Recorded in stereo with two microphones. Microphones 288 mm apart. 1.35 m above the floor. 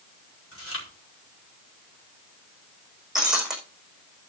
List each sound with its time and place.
0.5 s chewing: 50° left (ahead or behind), 5 m
3.1 s breaking glass: centre (ahead or behind), 5.5 m